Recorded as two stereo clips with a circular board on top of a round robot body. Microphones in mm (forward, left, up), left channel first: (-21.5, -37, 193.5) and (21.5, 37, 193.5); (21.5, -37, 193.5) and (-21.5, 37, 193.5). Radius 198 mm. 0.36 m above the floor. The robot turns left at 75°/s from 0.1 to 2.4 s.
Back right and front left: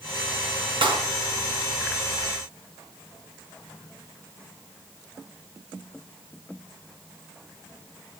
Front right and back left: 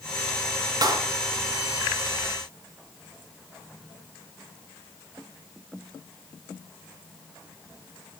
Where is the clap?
80° left, 4 m; by 1.1 s 60° left, 4 m.